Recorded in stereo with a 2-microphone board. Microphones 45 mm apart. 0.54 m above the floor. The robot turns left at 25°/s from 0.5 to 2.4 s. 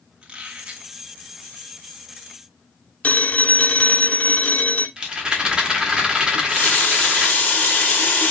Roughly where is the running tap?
Left.